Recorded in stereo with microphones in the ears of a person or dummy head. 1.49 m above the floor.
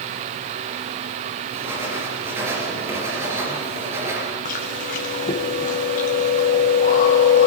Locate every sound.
1.5 s writing: 15° right (ahead or behind), 7.5 m
4.5 s chewing: 45° left (ahead or behind), 2 m